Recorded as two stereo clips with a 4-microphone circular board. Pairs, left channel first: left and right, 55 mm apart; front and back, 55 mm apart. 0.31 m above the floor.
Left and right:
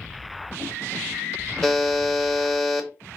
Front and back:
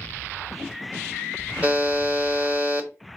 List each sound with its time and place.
1.6 s a buzzer: 175° left, 0.8 m